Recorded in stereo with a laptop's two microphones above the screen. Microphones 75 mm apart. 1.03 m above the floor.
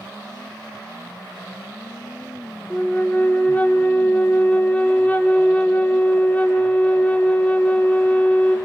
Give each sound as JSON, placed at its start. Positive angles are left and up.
{"t": 2.7, "sound": "a flute", "side_deg": 20, "distance_m": 0.6}